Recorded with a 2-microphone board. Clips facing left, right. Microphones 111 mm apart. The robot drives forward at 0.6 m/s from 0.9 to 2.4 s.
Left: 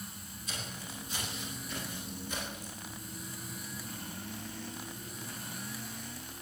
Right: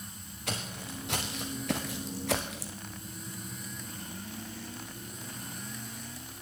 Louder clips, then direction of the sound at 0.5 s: Right 6 dB; 75° right (ahead or behind).